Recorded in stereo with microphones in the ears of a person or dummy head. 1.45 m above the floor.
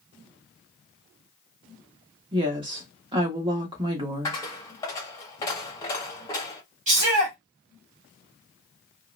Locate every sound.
2.3 s a woman speaking: 20° right (ahead or behind), 1.0 m
4.2 s a dropped coin: 20° left (ahead or behind), 0.7 m
6.9 s a shout: 30° right (ahead or behind), 2.5 m